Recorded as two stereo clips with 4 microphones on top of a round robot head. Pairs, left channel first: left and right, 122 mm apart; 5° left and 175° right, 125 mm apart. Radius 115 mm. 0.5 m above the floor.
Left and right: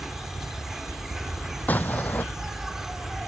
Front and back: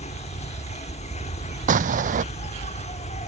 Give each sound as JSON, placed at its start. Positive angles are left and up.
{"t": 0.0, "sound": "an insect", "azimuth_deg": -5}
{"t": 1.7, "sound": "an explosion", "azimuth_deg": 170}